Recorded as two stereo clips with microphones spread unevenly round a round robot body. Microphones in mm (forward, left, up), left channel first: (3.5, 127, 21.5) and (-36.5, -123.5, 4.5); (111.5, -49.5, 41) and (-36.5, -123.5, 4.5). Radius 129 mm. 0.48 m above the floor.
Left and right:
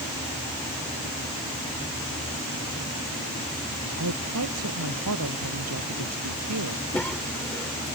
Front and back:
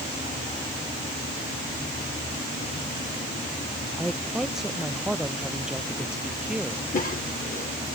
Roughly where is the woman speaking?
Ahead right.